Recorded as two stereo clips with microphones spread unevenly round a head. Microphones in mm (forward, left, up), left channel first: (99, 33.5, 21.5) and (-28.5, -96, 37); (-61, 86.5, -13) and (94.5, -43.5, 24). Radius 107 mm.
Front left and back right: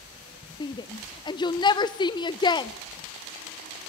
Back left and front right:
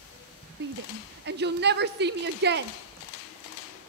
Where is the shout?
20° right, 0.8 m.